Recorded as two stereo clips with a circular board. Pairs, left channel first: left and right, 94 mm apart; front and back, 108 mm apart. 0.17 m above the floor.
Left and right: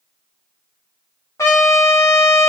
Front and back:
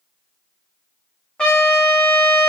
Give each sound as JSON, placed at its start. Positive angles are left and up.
{"t": 1.4, "sound": "a trumpet", "azimuth_deg": 70, "distance_m": 0.9}